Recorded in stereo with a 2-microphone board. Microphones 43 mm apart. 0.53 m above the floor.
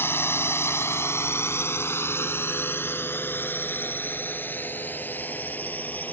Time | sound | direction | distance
0.0 | a drone | 60° left (ahead or behind) | ?